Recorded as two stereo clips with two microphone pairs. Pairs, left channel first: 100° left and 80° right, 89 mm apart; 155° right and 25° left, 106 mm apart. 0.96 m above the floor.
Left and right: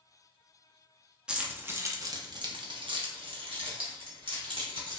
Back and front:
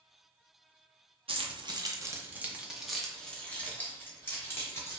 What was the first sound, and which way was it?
Keys jangling, 5° right.